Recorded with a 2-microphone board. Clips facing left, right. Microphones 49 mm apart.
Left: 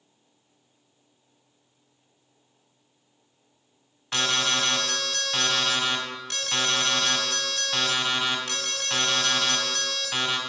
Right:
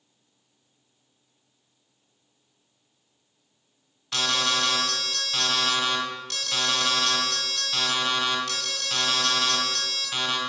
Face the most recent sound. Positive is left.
turn(degrees=35)  # may be behind; listen again after turning